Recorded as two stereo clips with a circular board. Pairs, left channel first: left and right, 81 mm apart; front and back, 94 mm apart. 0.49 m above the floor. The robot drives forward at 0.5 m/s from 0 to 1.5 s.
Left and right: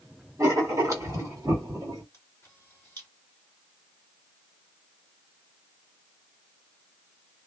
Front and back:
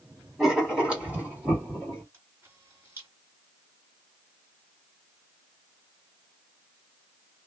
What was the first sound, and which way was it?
Writing, 95° right.